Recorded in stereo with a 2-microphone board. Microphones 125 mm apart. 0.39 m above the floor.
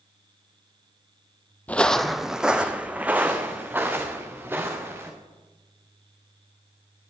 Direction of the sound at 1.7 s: 15° left (ahead or behind).